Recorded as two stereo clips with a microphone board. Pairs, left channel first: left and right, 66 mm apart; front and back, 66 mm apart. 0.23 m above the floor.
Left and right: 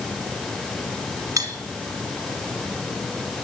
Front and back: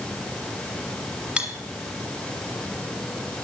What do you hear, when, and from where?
1.4 s cutlery clinking: 115° right, 1.4 m